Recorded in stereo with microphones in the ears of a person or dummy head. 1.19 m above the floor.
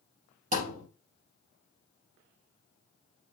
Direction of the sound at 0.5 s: 40° right (ahead or behind).